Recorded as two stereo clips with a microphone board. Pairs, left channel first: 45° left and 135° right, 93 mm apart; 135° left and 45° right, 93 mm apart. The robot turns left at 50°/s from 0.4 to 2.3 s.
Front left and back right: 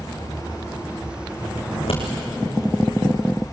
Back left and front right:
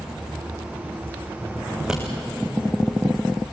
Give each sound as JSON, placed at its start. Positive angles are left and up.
{"t": 1.7, "sound": "scissors", "azimuth_deg": 45, "distance_m": 5.5}